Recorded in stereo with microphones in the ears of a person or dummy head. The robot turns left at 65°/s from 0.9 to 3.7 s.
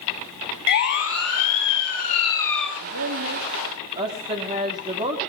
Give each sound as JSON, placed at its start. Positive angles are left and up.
{"t": 0.7, "sound": "a siren", "side_deg": 60, "distance_m": 8.0}
{"t": 2.8, "sound": "a woman speaking", "azimuth_deg": -90, "distance_m": 3.0}